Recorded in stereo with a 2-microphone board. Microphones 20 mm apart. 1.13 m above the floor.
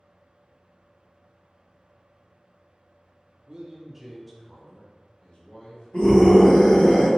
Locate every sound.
3.5 s a man speaking: 35° right (ahead or behind), 0.7 m; by 6.9 s 60° left (ahead or behind), 1.7 m
5.9 s a scream: 75° left (ahead or behind), 1.7 m